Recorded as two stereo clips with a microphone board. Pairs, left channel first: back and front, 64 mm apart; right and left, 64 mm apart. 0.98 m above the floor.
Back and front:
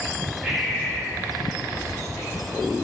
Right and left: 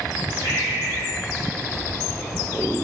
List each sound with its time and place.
0.4 s breathing: 80° left, 3 m